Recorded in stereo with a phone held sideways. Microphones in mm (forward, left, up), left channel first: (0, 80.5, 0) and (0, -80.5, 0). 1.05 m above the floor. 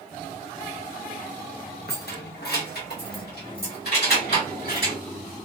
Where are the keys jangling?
85° left, 0.7 m; by 5.0 s 75° left (ahead or behind), 2.5 m.